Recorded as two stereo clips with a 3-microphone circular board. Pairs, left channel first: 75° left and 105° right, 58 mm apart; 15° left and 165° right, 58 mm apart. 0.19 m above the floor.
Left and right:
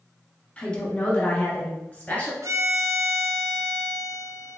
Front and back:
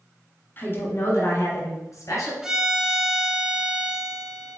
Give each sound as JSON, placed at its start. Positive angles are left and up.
{"t": 0.6, "sound": "a woman speaking", "azimuth_deg": 15, "distance_m": 1.2}
{"t": 2.4, "sound": "a violin", "azimuth_deg": -85, "distance_m": 0.5}